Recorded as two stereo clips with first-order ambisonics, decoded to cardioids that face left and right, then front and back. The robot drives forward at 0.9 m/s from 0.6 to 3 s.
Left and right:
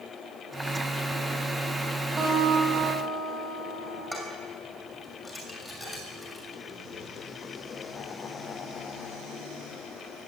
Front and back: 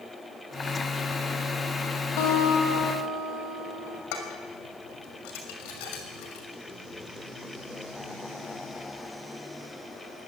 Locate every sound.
2.2 s a guitar: 15° right, 9 m; by 4.0 s 20° right, 8 m
4.1 s dishes clattering: 5° left, 6 m